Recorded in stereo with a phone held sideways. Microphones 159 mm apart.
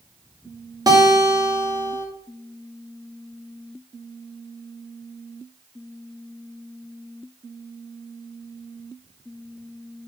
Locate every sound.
0.9 s a guitar: 25° right (ahead or behind), 2 m